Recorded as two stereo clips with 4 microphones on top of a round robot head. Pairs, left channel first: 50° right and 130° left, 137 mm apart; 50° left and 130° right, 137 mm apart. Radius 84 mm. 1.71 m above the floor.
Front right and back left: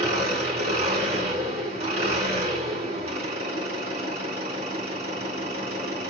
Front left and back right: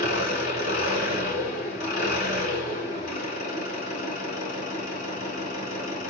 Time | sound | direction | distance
0.0 | an engine running | 85° left | 4.5 m